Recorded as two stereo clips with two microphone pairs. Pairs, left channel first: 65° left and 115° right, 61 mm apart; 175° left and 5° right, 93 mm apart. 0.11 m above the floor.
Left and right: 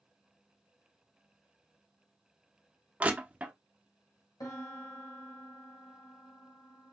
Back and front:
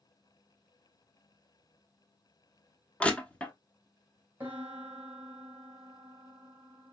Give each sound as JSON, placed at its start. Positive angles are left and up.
{"t": 3.0, "sound": "crushing", "azimuth_deg": -125, "distance_m": 0.7}
{"t": 4.4, "sound": "a piano", "azimuth_deg": 65, "distance_m": 1.2}